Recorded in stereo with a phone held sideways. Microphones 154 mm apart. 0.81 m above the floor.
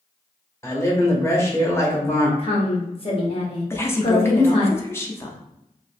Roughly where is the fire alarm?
No fire alarm in this recording.